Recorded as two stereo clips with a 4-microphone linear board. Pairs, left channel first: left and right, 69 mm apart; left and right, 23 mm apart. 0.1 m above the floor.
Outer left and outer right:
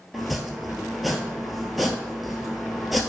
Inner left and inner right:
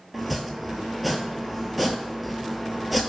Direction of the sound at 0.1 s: Centre (ahead or behind).